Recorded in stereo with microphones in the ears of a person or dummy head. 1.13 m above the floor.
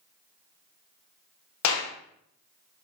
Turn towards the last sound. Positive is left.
turn(degrees=80)